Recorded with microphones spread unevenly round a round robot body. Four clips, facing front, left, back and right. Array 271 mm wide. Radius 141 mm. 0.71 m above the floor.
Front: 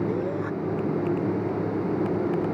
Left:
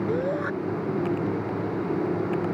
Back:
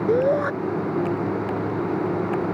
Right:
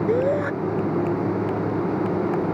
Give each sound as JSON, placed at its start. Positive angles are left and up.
{"t": 0.1, "sound": "a shout", "azimuth_deg": -155}